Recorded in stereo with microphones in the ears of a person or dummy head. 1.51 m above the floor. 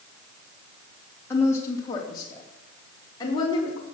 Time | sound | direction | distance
1.3 | a woman speaking | 15° left (ahead or behind) | 3 m